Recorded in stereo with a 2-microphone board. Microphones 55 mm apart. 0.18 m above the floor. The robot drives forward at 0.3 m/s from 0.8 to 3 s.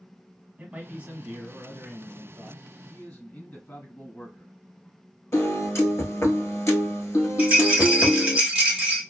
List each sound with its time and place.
0.6 s a man speaking: 20° right (ahead or behind), 1.1 m
2.9 s a man speaking: 40° left (ahead or behind), 1.9 m
5.3 s a piano: 60° left (ahead or behind), 0.8 m
7.4 s a rattle: 15° right (ahead or behind), 1.8 m